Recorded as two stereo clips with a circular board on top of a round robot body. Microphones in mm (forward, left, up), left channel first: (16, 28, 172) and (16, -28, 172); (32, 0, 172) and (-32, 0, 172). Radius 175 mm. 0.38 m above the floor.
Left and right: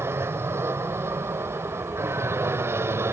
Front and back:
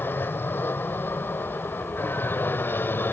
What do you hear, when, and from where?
0.0 s an aircraft: 55° right